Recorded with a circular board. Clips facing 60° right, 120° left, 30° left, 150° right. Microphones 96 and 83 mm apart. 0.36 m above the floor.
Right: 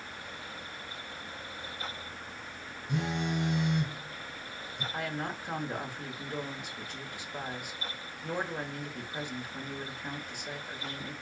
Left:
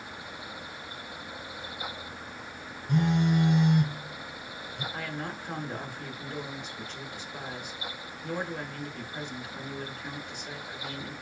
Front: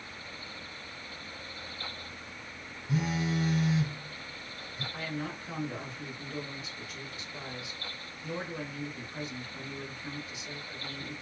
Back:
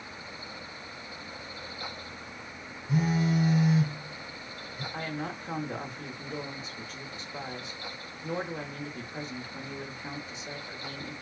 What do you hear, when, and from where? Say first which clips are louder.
2.9 s a phone buzzing: left 7 dB, back 4 dB; 125° left, 1.5 m
4.9 s a woman speaking: right 3 dB, back 2 dB; 135° right, 1.0 m